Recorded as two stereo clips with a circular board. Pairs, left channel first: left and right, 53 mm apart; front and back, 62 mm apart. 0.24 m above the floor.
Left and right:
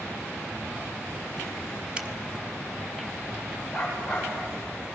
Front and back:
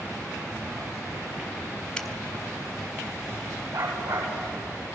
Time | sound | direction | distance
2.0 | a finger snap | 60° right | 1.4 m
3.7 | a dog barking | straight behind | 9.5 m